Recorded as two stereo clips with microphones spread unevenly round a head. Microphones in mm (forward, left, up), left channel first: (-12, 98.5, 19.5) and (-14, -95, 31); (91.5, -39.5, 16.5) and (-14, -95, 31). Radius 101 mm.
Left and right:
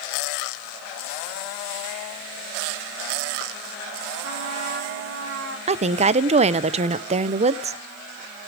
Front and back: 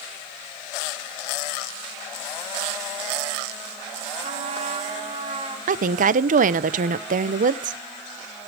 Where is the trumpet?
120° right, 4 m.